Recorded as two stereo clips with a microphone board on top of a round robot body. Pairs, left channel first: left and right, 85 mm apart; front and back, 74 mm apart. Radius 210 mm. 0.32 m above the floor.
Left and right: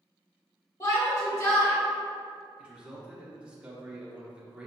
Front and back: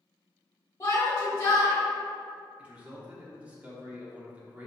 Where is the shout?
50° left, 1.5 m.